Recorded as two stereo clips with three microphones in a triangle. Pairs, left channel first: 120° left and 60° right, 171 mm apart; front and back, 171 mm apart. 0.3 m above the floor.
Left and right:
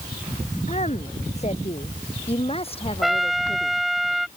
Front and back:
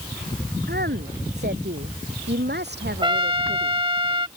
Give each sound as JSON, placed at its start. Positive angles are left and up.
{"t": 0.7, "sound": "a woman speaking", "azimuth_deg": 170}
{"t": 3.0, "sound": "a trumpet", "azimuth_deg": -150}